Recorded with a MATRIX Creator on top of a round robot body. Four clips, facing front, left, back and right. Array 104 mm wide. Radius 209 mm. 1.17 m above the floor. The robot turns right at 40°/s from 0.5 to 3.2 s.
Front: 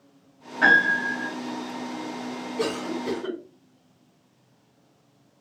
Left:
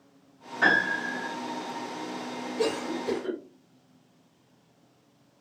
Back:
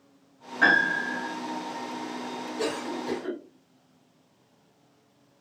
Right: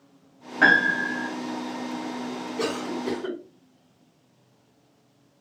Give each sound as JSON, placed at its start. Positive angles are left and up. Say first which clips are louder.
{"t": 0.6, "sound": "a piano", "louder": "right 5 dB, front 3 dB", "azimuth_deg": -100, "distance_m": 1.0}
{"t": 2.6, "sound": "a cough", "louder": "even, front 3 dB", "azimuth_deg": -60, "distance_m": 2.5}